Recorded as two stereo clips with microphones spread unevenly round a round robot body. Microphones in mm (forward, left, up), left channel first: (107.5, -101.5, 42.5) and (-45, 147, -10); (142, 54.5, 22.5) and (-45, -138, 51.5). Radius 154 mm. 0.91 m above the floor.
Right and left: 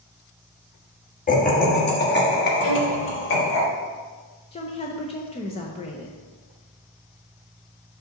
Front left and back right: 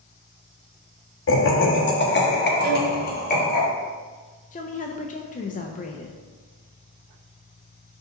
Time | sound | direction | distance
1.3 | laughter | 10° left | 1.4 m
2.6 | a violin | 85° right | 1.1 m
4.5 | a woman speaking | 15° left | 0.6 m